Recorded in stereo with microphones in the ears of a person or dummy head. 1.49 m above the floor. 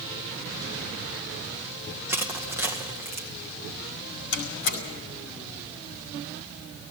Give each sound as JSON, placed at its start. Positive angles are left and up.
{"t": 2.1, "sound": "crushing", "side_deg": -15, "distance_m": 1.6}
{"t": 4.3, "sound": "a door slam", "side_deg": 55, "distance_m": 5.0}